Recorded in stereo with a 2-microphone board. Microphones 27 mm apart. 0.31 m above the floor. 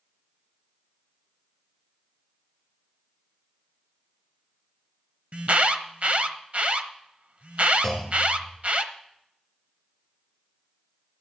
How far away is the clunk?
About 2.5 m.